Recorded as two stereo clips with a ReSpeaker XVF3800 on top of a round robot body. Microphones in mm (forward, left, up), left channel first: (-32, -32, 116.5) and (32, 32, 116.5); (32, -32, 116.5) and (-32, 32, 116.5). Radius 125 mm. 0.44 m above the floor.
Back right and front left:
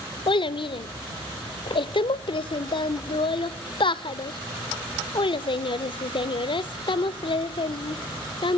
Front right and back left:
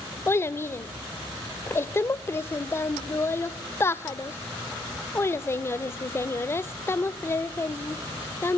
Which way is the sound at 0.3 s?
110° right.